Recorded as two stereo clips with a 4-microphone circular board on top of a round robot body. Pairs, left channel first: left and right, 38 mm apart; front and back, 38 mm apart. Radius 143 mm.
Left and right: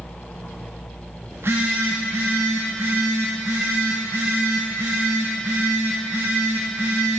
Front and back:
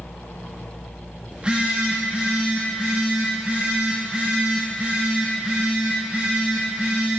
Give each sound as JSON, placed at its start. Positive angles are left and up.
{"t": 1.3, "sound": "a phone buzzing", "azimuth_deg": -110, "distance_m": 0.7}